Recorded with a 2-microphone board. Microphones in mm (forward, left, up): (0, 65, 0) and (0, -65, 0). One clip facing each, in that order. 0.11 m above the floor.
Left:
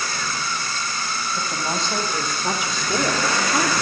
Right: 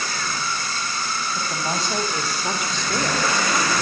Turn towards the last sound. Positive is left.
turn(degrees=30)  # may be behind; listen again after turning